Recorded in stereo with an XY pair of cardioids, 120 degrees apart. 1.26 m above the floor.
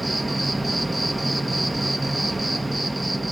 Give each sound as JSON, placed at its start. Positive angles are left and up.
{"t": 0.0, "sound": "an insect", "azimuth_deg": -15, "distance_m": 0.8}